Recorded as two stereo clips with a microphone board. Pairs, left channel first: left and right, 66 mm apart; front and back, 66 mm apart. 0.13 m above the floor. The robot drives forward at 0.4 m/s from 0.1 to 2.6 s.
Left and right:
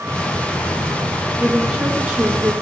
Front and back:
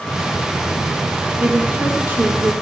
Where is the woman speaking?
145° right, 1.5 m; by 2.5 s 160° right, 1.7 m.